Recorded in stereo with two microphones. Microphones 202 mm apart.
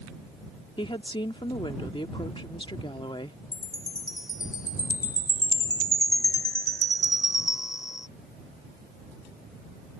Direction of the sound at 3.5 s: 20° left (ahead or behind).